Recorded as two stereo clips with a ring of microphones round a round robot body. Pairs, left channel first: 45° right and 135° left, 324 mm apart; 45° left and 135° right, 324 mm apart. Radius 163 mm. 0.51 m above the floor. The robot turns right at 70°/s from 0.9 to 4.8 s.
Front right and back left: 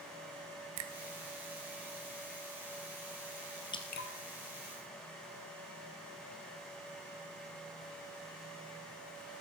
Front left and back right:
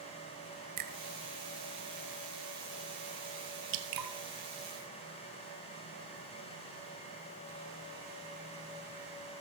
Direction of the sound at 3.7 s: 120° right.